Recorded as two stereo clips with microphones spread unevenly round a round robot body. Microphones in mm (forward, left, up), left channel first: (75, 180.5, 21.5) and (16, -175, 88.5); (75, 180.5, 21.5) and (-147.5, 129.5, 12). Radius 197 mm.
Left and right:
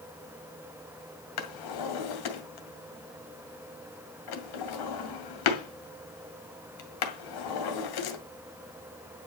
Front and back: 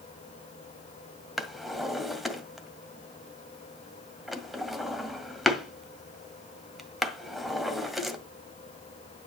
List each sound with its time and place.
1.4 s a drawer: 105° left, 1.9 m